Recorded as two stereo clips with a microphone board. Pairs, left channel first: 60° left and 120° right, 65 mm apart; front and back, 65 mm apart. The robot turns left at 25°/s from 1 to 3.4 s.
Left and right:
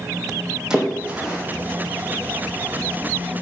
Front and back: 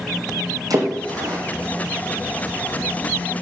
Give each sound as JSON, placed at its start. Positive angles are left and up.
{"t": 0.7, "sound": "a splash", "azimuth_deg": 160, "distance_m": 2.5}